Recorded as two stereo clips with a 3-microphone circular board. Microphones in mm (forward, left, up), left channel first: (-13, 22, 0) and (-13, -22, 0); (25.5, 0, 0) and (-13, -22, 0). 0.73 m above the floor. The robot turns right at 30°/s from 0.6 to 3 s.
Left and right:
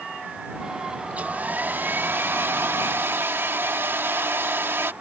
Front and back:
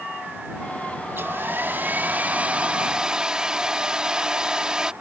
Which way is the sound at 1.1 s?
140° right.